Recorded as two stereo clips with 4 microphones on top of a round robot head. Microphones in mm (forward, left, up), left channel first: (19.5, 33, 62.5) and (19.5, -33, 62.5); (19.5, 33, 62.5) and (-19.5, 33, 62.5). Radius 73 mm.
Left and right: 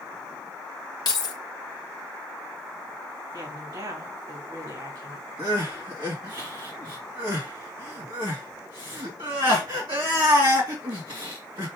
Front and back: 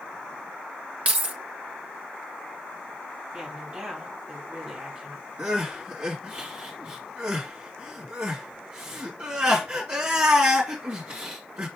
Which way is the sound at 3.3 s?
115° right.